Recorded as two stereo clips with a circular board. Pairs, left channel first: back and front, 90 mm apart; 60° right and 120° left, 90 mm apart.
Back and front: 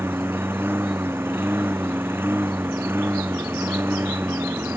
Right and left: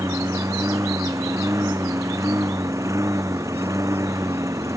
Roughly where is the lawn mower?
Ahead left.